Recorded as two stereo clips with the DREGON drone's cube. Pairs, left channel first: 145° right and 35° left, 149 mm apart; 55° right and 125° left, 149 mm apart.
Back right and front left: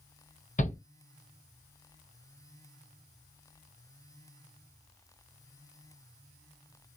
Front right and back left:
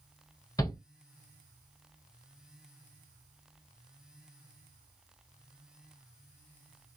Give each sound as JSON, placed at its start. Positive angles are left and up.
{"t": 0.6, "sound": "a shout", "azimuth_deg": -120, "distance_m": 0.9}